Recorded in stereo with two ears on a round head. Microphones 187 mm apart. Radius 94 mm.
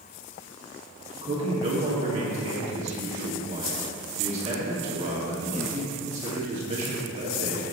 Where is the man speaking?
30° right (ahead or behind), 2.5 m.